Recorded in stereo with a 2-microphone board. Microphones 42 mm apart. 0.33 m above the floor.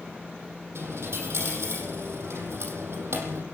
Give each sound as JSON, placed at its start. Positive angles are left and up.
{"t": 0.8, "sound": "a dropped coin", "side_deg": -85, "distance_m": 5.5}